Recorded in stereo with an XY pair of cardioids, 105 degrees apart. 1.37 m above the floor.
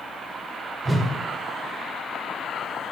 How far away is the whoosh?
About 1.2 m.